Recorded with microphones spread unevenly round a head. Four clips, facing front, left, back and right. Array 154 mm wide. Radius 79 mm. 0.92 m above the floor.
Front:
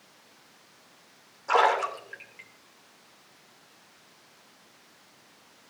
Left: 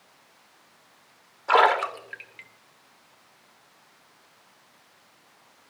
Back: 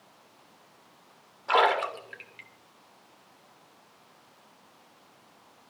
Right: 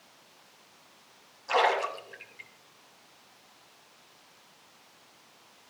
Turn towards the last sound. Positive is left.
turn(degrees=80)